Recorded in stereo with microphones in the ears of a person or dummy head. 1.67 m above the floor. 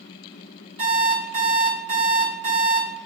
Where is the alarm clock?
35° right (ahead or behind), 1.9 m.